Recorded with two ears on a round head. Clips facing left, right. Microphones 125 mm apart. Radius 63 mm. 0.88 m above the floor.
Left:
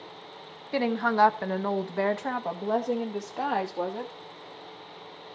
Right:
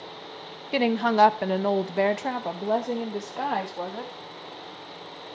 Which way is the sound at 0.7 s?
25° right (ahead or behind).